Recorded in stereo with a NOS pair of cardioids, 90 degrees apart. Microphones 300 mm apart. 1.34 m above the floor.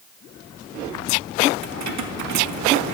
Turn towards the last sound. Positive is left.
turn(degrees=-65)